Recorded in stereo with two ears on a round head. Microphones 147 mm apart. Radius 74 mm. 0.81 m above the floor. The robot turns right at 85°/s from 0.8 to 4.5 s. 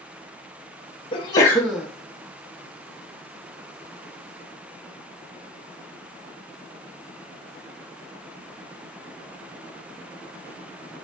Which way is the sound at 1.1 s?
125° left.